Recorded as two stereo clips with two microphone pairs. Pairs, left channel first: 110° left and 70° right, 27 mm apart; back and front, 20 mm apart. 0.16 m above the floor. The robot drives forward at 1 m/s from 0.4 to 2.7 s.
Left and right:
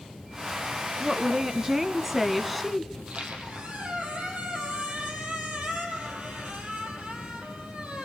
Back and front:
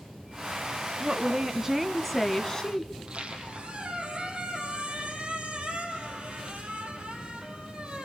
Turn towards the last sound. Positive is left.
turn(degrees=-40)